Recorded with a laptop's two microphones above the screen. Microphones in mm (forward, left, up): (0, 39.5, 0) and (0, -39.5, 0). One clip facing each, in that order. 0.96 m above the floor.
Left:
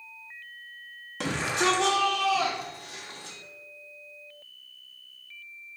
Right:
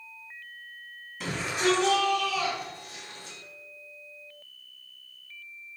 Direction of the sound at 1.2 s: 70° left (ahead or behind).